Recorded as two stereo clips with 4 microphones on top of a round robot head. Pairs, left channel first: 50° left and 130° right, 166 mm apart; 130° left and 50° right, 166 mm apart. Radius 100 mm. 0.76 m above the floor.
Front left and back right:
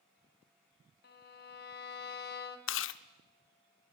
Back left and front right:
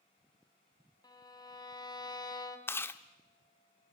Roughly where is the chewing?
Ahead left.